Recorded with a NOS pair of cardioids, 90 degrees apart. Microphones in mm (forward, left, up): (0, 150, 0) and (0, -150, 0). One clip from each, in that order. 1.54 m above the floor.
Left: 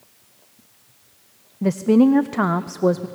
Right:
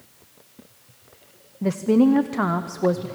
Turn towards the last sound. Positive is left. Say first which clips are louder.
# left 2 dB
turn(degrees=15)